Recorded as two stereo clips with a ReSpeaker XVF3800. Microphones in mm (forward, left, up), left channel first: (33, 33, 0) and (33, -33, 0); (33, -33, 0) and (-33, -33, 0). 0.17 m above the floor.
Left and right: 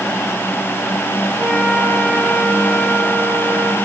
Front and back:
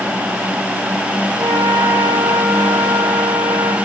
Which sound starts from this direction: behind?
A flute, at 1.4 s.